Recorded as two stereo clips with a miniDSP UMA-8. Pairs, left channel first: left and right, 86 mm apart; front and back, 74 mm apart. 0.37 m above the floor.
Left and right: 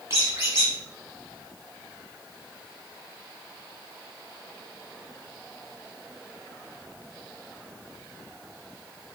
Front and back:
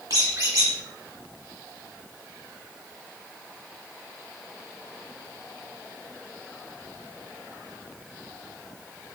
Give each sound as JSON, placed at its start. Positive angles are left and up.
{"t": 0.1, "sound": "a squeak", "azimuth_deg": -140, "distance_m": 1.2}